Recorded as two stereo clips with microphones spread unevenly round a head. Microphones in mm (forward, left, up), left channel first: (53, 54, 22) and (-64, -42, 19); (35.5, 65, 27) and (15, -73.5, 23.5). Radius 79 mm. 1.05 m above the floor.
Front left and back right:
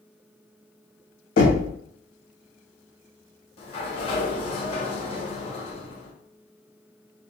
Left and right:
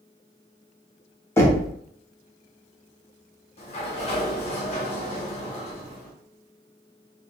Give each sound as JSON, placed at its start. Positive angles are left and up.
{"t": 1.4, "sound": "knocking", "azimuth_deg": 10, "distance_m": 1.1}
{"t": 3.6, "sound": "a sliding door", "azimuth_deg": 75, "distance_m": 0.8}